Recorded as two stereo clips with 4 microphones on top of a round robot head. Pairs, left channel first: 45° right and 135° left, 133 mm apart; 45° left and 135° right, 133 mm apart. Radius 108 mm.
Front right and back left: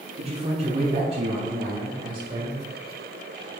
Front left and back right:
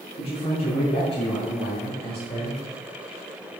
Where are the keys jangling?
No keys jangling in this recording.